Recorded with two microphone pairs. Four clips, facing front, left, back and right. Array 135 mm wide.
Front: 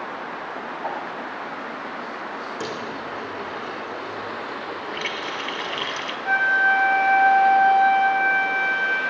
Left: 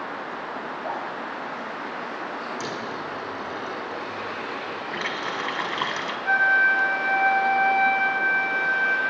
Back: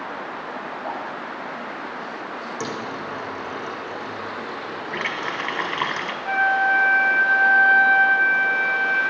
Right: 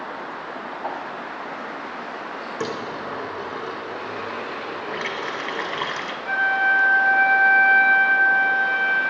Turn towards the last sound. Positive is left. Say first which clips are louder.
# left 1 dB, even
turn(degrees=40)